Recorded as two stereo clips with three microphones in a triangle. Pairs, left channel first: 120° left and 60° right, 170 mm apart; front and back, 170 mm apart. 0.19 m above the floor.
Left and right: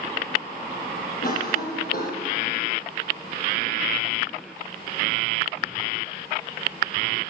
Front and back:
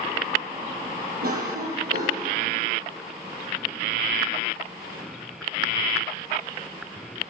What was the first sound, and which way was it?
A cough, 150° left.